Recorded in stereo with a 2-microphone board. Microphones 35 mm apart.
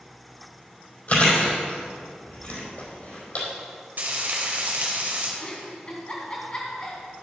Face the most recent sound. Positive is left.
turn(degrees=30)  # may be behind; listen again after turning